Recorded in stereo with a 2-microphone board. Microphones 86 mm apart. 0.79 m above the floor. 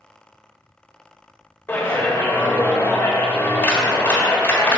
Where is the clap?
25° left (ahead or behind), 1.3 m.